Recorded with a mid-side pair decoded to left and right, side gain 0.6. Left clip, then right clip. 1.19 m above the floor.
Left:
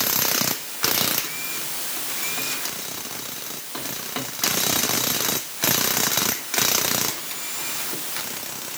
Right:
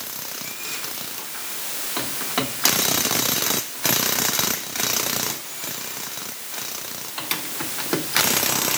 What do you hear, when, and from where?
Only background noise.